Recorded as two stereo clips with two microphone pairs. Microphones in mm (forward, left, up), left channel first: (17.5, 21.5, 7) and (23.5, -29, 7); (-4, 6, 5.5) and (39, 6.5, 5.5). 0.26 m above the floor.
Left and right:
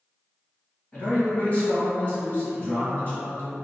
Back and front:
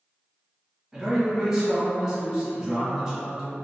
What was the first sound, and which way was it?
A man speaking, 80° left.